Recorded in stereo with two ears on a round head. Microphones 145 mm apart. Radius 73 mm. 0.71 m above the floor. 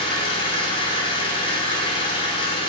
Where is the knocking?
I don't hear knocking.